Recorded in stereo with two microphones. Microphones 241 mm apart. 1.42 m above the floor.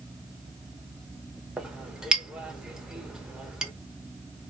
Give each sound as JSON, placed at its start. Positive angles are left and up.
{"t": 1.6, "sound": "a clink", "side_deg": -5, "distance_m": 0.7}